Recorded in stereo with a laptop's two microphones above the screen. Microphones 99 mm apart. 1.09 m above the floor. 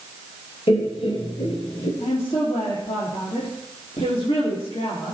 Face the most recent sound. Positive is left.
turn(degrees=65)  # may be behind; listen again after turning